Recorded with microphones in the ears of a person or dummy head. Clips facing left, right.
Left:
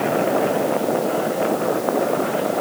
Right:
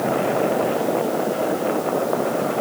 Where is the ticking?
I don't hear ticking.